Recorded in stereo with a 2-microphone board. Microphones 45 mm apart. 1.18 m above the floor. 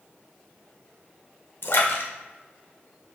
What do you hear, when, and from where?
1.6 s a splash: 65° left (ahead or behind), 1.8 m